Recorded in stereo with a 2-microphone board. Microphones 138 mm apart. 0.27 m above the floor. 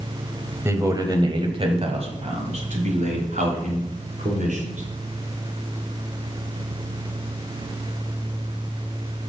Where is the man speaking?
20° right (ahead or behind), 1.3 m; by 4.8 s 70° right (ahead or behind), 3.5 m.